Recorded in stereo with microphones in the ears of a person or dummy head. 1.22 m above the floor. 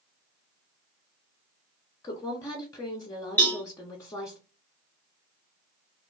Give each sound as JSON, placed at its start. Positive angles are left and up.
{"t": 2.0, "sound": "a woman speaking", "side_deg": 20, "distance_m": 0.6}
{"t": 3.4, "sound": "a cowbell", "side_deg": 10, "distance_m": 0.7}